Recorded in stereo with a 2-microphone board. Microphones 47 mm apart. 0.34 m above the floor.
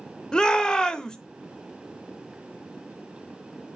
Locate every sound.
0.3 s a shout: 15° left (ahead or behind), 0.9 m